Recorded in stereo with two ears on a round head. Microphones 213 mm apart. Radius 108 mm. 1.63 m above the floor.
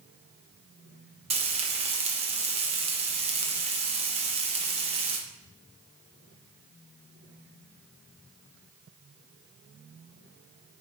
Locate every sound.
1.3 s frying: 25° right (ahead or behind), 1.0 m